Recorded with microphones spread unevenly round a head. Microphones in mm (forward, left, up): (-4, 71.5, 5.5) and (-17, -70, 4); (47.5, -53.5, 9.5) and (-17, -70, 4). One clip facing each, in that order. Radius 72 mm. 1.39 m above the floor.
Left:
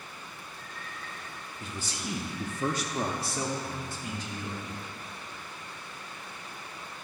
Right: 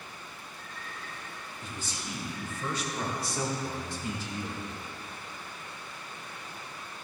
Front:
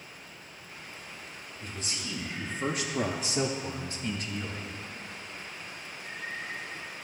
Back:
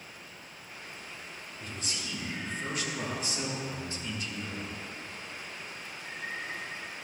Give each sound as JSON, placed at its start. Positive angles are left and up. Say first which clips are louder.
{"t": 1.6, "sound": "a man speaking", "louder": "left 3 dB, front 1 dB", "azimuth_deg": 115, "distance_m": 1.2}